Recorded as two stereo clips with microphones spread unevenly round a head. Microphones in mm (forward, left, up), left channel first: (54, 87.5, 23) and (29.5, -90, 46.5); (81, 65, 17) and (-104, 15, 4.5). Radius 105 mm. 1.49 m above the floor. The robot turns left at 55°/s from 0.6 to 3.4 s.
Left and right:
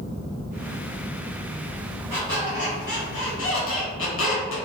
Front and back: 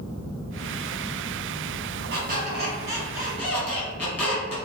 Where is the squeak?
165° left, 1.2 m; by 4.6 s 95° left, 1.2 m.